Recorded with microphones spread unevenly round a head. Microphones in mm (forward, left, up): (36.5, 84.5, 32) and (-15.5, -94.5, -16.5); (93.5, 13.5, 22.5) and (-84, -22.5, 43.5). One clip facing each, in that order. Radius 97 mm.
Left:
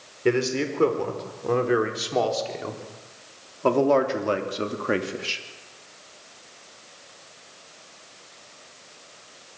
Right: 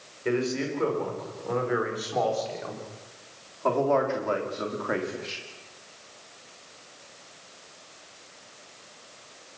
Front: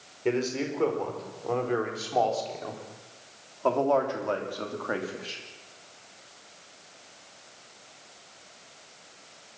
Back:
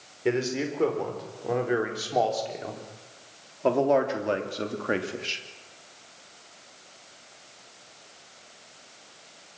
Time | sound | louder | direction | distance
0.2 | a man speaking | left 4 dB, back 1 dB | 110° left | 5 m